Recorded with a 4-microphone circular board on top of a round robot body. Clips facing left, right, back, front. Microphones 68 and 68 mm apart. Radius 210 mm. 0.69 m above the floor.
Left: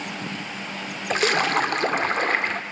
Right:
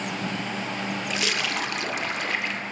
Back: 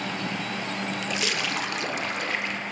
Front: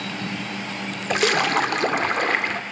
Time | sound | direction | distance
1.1 | a splash | 40° left | 1.6 m